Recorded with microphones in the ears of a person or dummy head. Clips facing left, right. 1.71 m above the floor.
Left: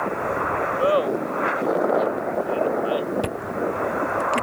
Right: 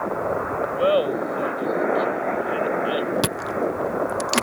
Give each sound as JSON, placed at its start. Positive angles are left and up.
{"t": 0.7, "sound": "laughter", "side_deg": -15}
{"t": 3.2, "sound": "chewing", "side_deg": -80}